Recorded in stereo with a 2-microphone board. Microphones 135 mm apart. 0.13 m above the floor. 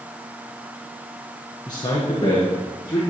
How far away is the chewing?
I don't hear chewing.